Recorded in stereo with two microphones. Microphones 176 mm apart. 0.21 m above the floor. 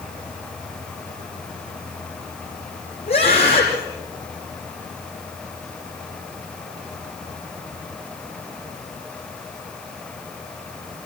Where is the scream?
35° left (ahead or behind), 7.5 m.